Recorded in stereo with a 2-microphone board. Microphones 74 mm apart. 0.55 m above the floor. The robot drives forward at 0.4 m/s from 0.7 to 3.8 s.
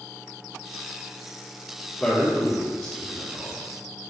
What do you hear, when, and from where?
2.0 s a man speaking: 5° left (ahead or behind), 1.6 m